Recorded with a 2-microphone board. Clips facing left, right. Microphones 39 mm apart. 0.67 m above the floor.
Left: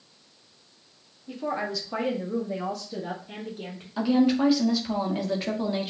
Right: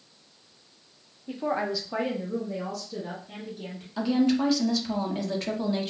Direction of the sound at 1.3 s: 25° right (ahead or behind).